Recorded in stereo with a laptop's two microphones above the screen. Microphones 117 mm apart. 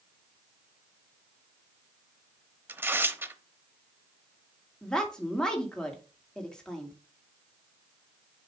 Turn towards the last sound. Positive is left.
turn(degrees=5)  # may be behind; listen again after turning